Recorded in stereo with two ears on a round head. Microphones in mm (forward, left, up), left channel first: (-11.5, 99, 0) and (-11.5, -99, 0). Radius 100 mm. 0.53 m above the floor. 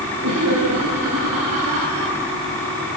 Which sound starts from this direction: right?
Laughter, at 0.2 s.